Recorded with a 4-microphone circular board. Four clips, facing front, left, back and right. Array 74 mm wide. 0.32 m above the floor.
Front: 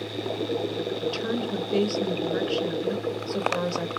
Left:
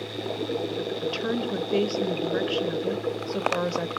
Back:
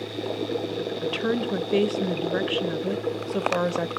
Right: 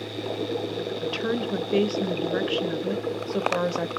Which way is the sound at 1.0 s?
165° right.